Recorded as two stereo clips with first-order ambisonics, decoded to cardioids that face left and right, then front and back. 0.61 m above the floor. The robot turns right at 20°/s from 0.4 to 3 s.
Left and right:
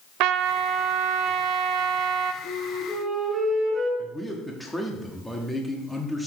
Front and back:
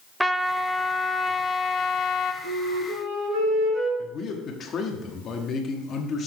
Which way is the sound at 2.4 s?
160° right.